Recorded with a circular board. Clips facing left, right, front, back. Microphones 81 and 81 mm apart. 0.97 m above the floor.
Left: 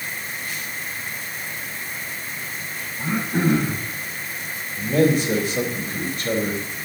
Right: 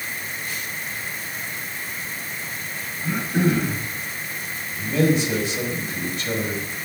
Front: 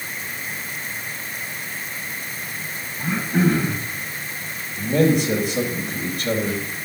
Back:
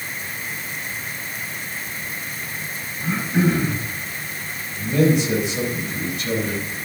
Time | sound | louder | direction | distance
3.0 | throat clearing | even, even | 45° left | 7 m
4.8 | a man speaking | left 2 dB, even | 45° left | 4.5 m